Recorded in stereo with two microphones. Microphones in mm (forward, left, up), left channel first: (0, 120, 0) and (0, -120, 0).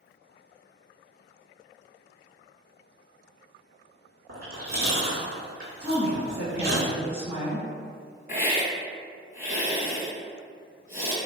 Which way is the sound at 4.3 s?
65° right (ahead or behind).